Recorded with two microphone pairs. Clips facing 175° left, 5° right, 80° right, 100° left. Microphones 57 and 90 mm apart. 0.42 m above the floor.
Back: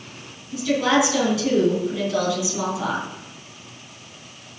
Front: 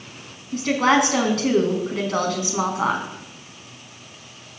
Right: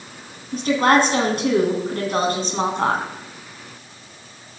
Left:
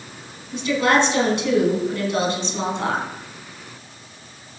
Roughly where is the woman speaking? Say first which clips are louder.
Front 1 dB, right 2 dB; ahead right.